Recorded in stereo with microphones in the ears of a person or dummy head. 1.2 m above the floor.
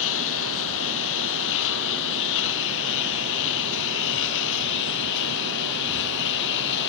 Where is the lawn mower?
75° left (ahead or behind); by 6.9 s 65° left (ahead or behind).